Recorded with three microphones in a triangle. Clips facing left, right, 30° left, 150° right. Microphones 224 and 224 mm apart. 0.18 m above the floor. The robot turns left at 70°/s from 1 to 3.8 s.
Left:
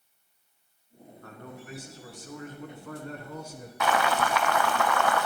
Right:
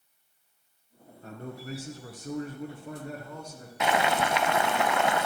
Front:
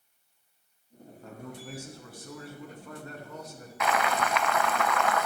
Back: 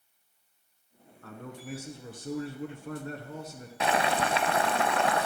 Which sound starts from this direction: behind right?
Boiling, at 3.8 s.